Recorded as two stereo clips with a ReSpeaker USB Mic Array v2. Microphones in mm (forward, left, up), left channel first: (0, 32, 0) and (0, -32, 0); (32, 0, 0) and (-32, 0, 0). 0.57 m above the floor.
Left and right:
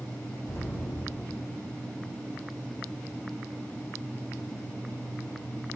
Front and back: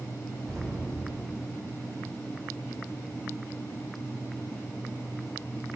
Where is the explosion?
75° left, 8.5 m.